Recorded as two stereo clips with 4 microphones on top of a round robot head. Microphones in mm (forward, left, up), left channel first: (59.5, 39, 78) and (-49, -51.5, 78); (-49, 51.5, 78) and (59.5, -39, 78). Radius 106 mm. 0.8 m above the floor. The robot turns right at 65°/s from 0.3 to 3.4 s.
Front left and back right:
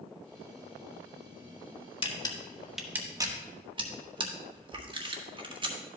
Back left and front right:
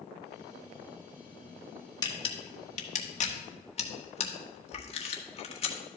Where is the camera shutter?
85° left, 1.4 m; by 5.8 s 175° left, 1.4 m.